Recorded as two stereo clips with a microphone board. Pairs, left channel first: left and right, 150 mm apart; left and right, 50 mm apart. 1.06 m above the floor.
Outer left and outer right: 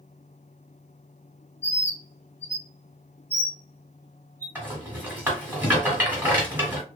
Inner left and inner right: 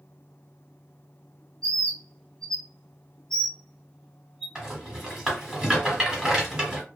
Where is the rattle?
15° right (ahead or behind), 1.3 m.